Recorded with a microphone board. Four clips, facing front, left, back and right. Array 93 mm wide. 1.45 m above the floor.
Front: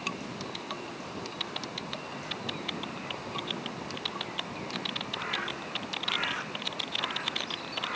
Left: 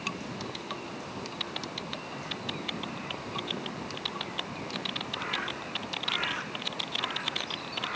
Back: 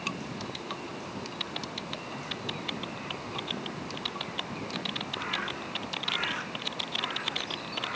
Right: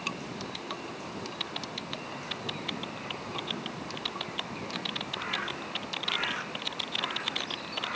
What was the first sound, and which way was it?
Only background noise.